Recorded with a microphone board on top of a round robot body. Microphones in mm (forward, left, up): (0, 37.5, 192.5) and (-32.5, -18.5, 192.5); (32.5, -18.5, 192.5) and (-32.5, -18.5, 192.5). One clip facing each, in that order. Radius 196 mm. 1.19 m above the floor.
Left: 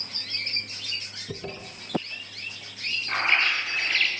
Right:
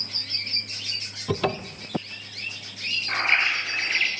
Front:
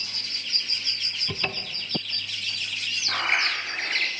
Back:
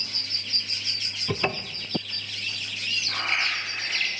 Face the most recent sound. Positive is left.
turn(degrees=-50)